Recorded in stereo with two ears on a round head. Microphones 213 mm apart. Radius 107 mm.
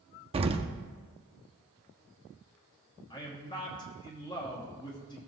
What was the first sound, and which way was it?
An explosion, 25° right (ahead or behind).